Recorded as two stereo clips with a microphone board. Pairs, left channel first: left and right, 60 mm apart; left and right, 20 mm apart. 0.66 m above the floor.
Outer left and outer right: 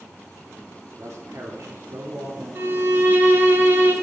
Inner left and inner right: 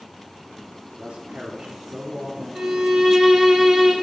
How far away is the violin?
About 1.8 m.